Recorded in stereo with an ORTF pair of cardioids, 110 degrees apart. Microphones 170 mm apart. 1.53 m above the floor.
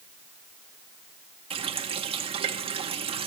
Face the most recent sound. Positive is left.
turn(degrees=-35)